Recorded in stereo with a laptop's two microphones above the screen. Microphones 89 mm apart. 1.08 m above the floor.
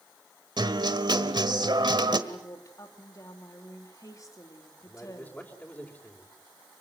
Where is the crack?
No crack in this recording.